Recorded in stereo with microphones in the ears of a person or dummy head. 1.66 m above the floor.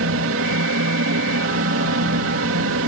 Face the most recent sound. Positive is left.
turn(degrees=-75)  # may be behind; listen again after turning